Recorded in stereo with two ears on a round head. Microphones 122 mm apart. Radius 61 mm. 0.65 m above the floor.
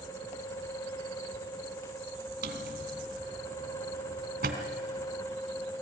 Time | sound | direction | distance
2.4 | a drawer | 65° right (ahead or behind) | 1.9 m